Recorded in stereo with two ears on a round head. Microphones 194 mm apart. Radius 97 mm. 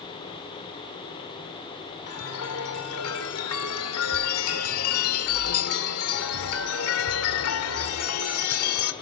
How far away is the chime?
About 2 m.